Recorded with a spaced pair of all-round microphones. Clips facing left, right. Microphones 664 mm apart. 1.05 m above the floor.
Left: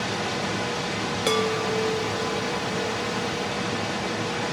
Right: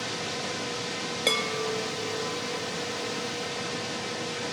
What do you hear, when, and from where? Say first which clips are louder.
0.0 s a machine running: left 6 dB; 75° left (ahead or behind), 1.0 m
1.3 s a chime: left 6 dB; 40° left (ahead or behind), 1.6 m